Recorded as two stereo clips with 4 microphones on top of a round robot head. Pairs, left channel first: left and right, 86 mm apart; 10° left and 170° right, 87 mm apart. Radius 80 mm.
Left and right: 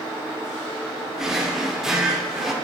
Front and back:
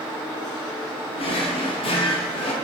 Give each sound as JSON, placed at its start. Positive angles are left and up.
{"t": 1.2, "sound": "a drawer", "azimuth_deg": -5, "distance_m": 1.0}